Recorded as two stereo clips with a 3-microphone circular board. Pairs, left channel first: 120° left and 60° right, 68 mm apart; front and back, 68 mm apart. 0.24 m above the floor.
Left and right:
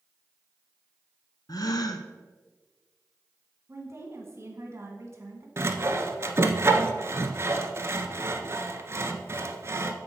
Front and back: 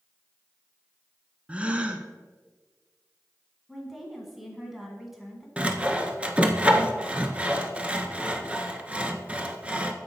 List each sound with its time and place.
1.5 s a gasp: 110° left, 0.6 m
3.7 s a woman speaking: 95° right, 1.6 m
5.6 s sawing: 110° right, 0.6 m